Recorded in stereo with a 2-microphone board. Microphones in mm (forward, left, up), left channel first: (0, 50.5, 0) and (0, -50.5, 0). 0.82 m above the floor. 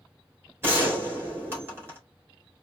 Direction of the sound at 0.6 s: 25° right (ahead or behind).